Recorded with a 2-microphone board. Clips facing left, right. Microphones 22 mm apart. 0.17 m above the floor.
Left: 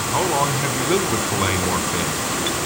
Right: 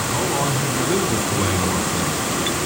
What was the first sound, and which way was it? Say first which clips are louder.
A man speaking: left 3 dB; 30° left (ahead or behind).